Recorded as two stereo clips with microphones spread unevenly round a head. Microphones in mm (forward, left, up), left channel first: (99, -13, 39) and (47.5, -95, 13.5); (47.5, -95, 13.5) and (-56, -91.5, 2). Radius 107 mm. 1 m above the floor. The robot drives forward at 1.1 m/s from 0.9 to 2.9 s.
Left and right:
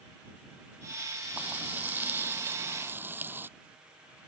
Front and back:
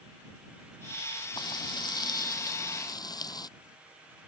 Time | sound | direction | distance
1.4 | frying | 45° right | ?